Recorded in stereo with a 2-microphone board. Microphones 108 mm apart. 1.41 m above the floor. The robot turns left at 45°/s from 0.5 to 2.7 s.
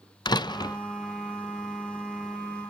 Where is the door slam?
40° left (ahead or behind), 0.6 m; by 0.8 s 35° left (ahead or behind), 0.6 m.